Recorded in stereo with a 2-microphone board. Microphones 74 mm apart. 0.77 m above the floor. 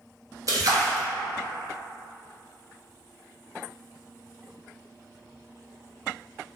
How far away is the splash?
About 0.7 m.